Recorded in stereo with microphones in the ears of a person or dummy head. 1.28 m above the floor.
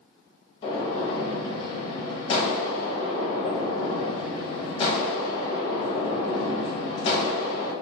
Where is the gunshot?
35° left (ahead or behind), 0.8 m.